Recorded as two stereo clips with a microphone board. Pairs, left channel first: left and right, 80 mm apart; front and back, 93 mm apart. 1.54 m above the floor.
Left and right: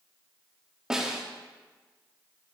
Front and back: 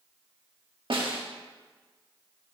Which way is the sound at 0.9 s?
170° right.